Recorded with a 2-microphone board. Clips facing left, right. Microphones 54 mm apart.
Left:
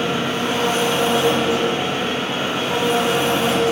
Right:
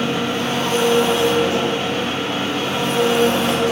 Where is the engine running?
20° left (ahead or behind), 1.8 m.